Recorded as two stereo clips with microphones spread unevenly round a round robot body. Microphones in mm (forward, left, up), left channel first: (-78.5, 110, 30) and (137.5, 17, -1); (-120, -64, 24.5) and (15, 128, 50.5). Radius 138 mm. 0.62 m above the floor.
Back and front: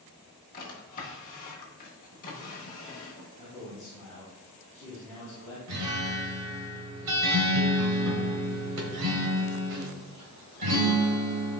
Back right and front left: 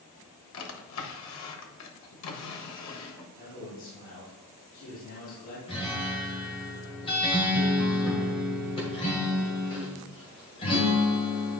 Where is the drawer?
140° right, 1.2 m.